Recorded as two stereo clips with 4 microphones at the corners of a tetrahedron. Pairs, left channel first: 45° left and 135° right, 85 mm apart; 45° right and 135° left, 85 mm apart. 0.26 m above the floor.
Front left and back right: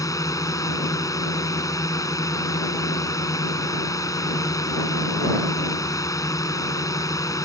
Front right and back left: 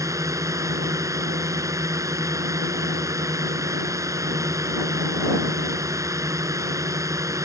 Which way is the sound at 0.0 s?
90° left.